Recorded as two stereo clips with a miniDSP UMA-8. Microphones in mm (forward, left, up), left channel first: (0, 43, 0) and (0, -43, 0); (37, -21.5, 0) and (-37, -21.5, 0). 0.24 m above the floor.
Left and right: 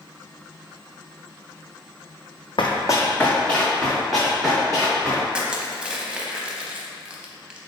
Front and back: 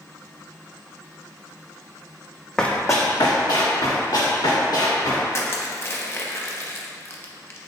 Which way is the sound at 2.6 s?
80° left.